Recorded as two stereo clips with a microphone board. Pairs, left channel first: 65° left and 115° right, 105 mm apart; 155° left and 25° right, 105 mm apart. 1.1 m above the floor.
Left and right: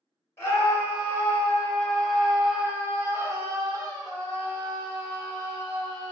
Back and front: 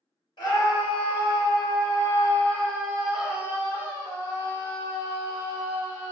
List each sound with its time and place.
0.4 s a scream: 130° left, 1.4 m; by 6.1 s 65° right, 1.9 m